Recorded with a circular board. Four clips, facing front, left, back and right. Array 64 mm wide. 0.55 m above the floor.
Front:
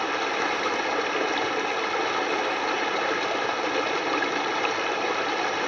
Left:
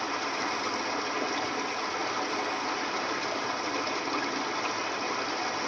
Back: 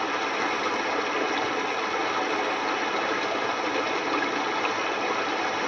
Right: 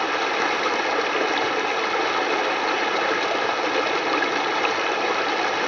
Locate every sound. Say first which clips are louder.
0.0 s running water: right 9 dB, front 1 dB; 75° right, 1.3 m